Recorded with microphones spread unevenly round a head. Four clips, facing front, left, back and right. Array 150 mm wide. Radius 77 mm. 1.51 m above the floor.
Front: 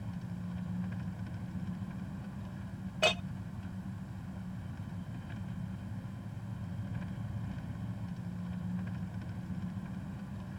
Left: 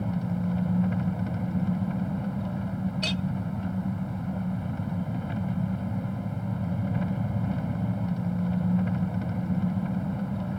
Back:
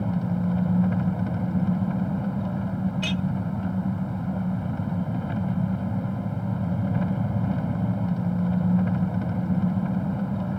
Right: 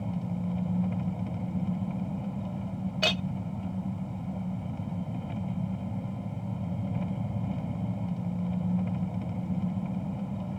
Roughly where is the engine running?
Behind.